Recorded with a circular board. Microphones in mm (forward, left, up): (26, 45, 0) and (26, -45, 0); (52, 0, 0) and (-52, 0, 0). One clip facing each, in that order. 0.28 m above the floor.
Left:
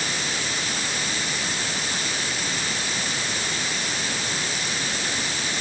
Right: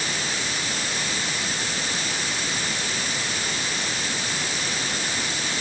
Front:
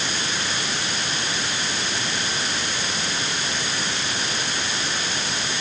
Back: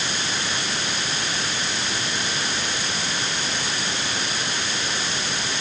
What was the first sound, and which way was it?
Only background noise.